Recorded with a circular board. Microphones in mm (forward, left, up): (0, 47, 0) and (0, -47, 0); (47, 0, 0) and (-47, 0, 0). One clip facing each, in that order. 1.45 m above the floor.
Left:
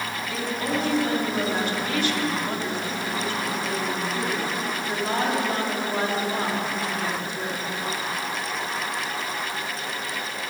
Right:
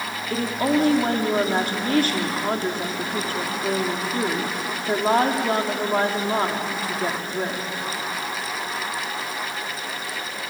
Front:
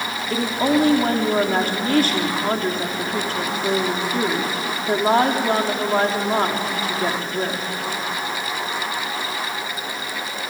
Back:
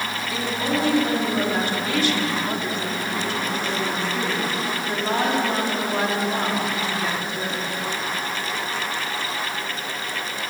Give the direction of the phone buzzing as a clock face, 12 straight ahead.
No phone buzzing in this recording.